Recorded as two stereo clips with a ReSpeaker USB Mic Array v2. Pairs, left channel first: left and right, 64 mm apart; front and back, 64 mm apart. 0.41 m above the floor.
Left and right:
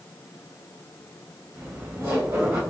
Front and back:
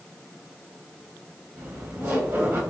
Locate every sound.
1.6 s laughter: 125° right, 2 m